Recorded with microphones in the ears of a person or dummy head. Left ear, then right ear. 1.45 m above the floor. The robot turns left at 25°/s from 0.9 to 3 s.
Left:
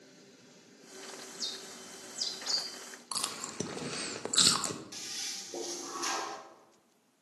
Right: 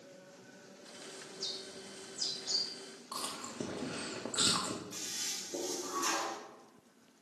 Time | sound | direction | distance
1.3 | a bird | 75° left (ahead or behind) | 1.5 m
3.1 | chewing | 70° left (ahead or behind) | 0.8 m
4.9 | a toilet flushing | 20° left (ahead or behind) | 1.1 m